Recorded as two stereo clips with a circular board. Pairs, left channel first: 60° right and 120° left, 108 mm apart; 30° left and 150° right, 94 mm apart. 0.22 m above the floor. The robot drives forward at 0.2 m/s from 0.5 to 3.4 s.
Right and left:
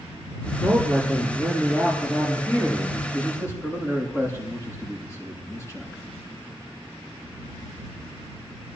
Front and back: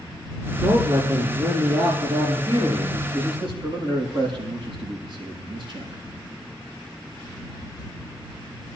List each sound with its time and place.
0.6 s a man speaking: 125° right, 5.5 m; by 3.0 s 130° right, 6 m
3.1 s a man speaking: 125° right, 6.5 m